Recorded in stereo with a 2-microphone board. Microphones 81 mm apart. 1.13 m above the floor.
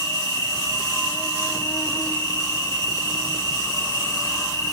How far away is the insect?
About 3.5 m.